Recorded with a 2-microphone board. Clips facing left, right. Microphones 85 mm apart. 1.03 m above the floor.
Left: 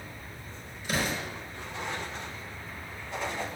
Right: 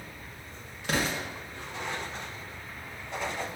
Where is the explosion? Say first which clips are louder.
Right 1 dB; 75° right (ahead or behind), 1.3 m.